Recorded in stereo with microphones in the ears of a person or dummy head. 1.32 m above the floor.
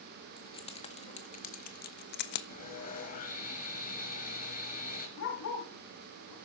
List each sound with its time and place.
0.4 s keys jangling: 25° left (ahead or behind), 2.0 m; by 2.4 s 65° left (ahead or behind), 1.2 m
2.5 s sawing: 45° left (ahead or behind), 5.5 m
5.2 s a dog barking: 80° left, 6 m